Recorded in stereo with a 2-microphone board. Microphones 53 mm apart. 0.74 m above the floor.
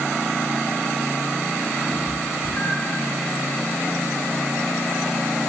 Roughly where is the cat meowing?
Centre.